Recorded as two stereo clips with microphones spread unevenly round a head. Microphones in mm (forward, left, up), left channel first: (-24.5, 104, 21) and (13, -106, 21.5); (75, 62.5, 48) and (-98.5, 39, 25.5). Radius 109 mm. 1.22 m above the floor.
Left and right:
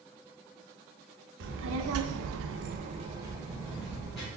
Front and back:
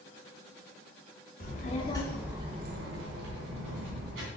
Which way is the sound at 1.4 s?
40° right.